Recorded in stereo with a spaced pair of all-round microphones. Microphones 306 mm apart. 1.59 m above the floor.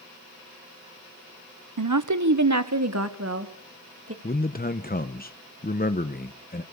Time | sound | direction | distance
1.8 | a woman speaking | 85° right | 0.8 m
4.2 | a man speaking | 30° left (ahead or behind) | 0.8 m